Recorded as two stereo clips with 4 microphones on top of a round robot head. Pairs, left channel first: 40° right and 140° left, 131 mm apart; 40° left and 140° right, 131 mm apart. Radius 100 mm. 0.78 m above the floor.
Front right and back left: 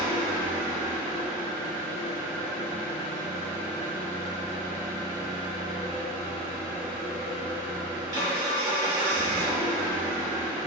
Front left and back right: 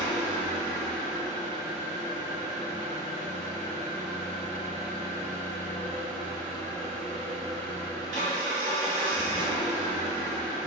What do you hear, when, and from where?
0.0 s an engine running: 165° right, 1.9 m